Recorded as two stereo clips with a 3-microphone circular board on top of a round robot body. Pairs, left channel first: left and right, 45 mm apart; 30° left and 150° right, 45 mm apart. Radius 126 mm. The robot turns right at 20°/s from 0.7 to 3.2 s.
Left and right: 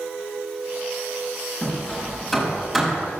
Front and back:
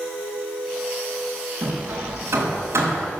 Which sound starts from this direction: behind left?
Hammering, at 1.6 s.